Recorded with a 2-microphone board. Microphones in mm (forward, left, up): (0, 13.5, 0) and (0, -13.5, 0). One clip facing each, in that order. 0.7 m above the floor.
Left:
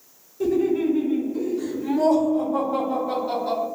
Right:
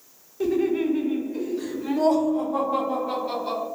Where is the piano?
I don't hear a piano.